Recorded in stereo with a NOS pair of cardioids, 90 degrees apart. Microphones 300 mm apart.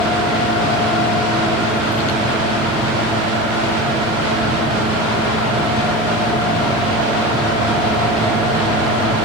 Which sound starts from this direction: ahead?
A fan, at 0.0 s.